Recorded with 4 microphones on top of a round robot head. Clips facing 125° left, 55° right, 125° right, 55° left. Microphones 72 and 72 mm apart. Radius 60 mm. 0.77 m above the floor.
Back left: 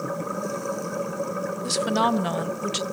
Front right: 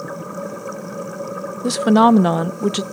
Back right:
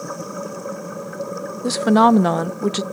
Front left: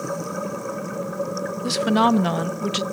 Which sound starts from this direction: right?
A woman speaking, at 1.6 s.